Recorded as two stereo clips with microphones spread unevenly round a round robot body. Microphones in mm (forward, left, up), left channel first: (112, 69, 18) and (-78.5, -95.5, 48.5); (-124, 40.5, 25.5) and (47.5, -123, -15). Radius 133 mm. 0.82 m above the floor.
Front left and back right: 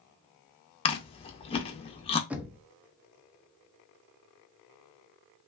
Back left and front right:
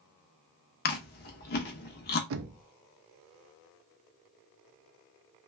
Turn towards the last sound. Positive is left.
turn(degrees=-50)